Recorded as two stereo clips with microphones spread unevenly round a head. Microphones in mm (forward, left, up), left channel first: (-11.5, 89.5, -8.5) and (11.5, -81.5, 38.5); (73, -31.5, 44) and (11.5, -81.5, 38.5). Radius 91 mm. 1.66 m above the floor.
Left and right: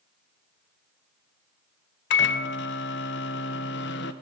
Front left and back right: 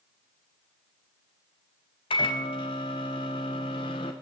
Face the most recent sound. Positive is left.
turn(degrees=65)